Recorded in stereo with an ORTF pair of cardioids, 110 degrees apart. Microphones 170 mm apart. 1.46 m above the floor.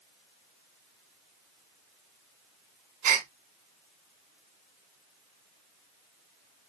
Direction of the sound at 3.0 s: 55° right.